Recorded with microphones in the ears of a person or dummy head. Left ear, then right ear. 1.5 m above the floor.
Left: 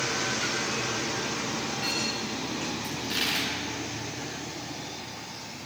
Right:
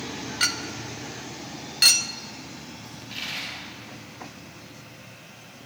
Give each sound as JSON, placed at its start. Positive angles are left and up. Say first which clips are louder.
{"t": 0.4, "sound": "a clink", "louder": "right 2 dB", "side_deg": -65, "distance_m": 0.9}
{"t": 2.8, "sound": "a dropped coin", "louder": "left 4 dB", "side_deg": 60, "distance_m": 7.0}